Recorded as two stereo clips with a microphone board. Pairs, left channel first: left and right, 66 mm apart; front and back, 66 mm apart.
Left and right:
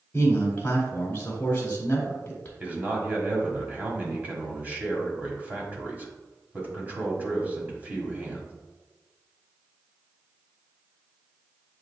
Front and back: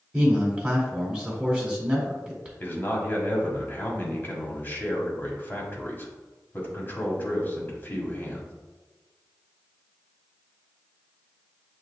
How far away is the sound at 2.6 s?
About 1.2 m.